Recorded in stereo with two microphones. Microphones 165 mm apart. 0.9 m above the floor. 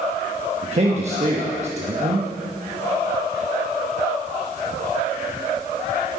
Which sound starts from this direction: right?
A man speaking, at 0.6 s.